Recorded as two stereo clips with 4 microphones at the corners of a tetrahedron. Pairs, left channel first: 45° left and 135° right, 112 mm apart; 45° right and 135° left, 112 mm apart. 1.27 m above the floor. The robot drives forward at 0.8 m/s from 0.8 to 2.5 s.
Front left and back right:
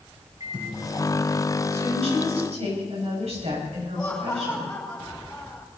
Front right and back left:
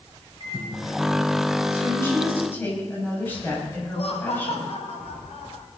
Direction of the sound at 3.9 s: 30° right.